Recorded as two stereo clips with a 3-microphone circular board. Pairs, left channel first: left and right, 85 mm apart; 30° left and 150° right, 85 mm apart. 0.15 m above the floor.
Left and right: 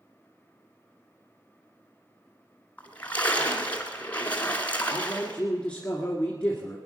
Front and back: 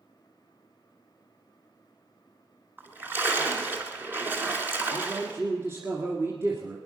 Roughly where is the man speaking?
Behind.